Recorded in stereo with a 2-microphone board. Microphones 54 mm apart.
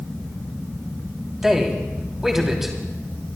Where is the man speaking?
5° right (ahead or behind), 3 m.